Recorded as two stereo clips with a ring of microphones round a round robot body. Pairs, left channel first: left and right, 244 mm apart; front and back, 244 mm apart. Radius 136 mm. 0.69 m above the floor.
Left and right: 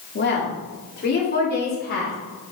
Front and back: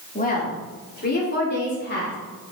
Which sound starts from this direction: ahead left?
A woman speaking, at 0.1 s.